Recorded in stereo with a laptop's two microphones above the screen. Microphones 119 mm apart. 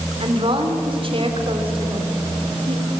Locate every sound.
0.2 s a woman speaking: 45° right (ahead or behind), 3.5 m